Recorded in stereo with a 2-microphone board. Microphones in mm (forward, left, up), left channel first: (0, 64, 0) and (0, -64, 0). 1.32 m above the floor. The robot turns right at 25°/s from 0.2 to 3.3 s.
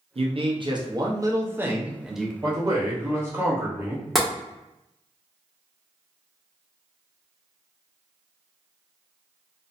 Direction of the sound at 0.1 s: 55° right.